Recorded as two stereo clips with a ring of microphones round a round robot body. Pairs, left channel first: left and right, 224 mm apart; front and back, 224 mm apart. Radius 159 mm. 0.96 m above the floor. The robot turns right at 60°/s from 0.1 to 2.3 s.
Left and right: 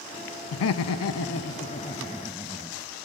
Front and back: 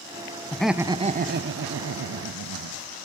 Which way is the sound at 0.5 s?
80° left.